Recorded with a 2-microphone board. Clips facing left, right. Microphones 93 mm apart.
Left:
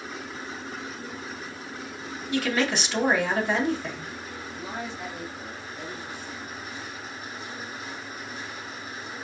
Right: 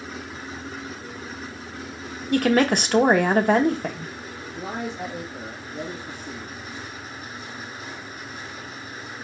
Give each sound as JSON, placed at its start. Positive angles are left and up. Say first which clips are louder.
{"t": 2.3, "sound": "a woman speaking", "louder": "right 7 dB", "side_deg": -50, "distance_m": 0.8}
{"t": 4.5, "sound": "a man speaking", "louder": "right 6 dB", "side_deg": -60, "distance_m": 1.6}